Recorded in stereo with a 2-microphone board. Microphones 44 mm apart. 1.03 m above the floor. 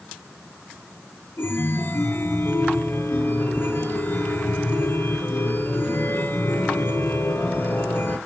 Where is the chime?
60° left (ahead or behind), 3 m.